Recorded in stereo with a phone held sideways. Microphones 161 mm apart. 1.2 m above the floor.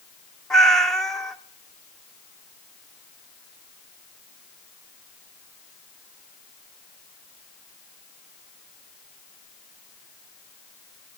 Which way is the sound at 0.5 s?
Centre (ahead or behind).